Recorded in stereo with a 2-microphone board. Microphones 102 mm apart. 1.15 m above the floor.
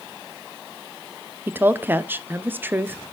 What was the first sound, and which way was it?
A woman speaking, 20° right (ahead or behind).